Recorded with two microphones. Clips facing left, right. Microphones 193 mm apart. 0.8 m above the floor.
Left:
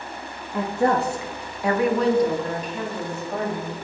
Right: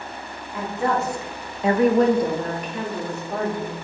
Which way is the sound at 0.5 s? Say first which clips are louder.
Left 3 dB; 55° left (ahead or behind).